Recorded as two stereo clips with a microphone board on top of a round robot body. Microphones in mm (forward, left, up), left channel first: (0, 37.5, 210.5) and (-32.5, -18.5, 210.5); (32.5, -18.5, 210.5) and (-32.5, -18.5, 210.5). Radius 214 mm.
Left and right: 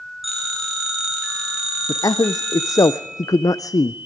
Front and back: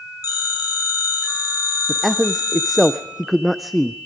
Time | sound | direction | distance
0.2 | a phone ringing | 30° right | 7 m
1.9 | a man speaking | 90° left | 0.5 m